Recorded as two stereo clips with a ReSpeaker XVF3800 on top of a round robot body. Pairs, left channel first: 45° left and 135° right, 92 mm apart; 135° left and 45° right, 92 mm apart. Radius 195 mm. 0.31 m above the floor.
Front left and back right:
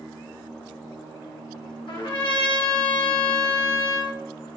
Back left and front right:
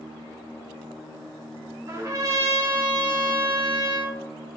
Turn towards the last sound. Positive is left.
turn(degrees=10)